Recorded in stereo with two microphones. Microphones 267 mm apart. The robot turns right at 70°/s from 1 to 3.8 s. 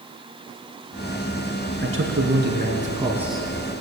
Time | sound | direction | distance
1.8 | a man speaking | 105° right | 2.5 m